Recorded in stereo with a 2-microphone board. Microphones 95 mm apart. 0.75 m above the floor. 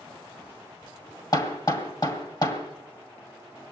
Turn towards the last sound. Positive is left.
turn(degrees=40)  # may be behind; listen again after turning